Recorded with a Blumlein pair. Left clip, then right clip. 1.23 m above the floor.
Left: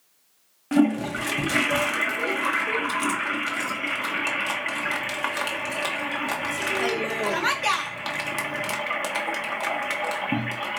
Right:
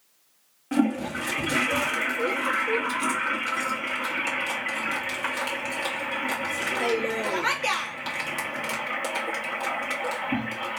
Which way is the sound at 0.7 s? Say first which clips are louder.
Left 3 dB; 15° left.